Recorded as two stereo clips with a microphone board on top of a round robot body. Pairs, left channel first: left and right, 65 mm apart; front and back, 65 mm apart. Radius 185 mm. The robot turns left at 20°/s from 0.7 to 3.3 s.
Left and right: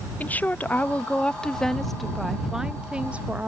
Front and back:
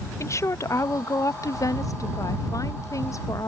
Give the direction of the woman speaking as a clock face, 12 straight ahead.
11 o'clock.